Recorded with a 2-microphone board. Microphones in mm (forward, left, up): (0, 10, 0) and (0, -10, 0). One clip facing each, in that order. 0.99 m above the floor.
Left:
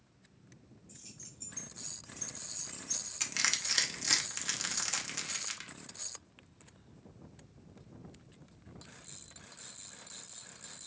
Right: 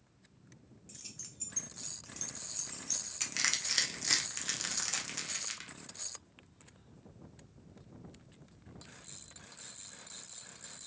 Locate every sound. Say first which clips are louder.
0.9 s keys jangling: right 4 dB; 65° right (ahead or behind), 1.0 m; by 3.1 s 50° right (ahead or behind), 1.8 m
3.2 s crushing: left 1 dB; 5° left (ahead or behind), 0.9 m